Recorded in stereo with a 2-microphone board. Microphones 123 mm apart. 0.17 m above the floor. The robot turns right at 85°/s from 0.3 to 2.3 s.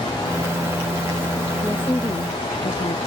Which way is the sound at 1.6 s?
Straight ahead.